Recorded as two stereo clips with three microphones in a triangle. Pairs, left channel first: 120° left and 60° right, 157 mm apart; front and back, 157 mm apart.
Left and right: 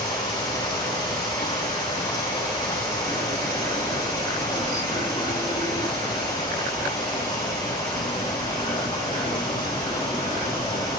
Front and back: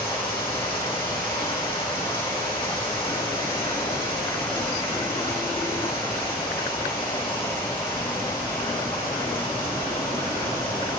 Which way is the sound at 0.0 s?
60° left.